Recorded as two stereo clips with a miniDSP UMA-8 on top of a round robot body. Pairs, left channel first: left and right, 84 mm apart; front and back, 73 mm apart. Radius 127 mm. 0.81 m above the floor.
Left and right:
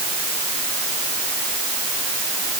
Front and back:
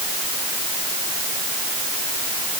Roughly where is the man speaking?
I don't hear a man speaking.